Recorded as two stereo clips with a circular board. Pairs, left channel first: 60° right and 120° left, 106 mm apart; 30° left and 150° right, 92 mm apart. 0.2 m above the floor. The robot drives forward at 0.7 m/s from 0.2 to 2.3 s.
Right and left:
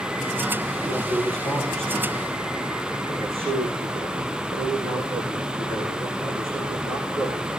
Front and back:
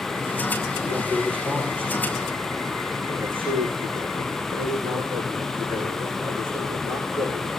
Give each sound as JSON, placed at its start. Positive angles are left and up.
{"t": 0.8, "sound": "a man speaking", "azimuth_deg": 135, "distance_m": 9.0}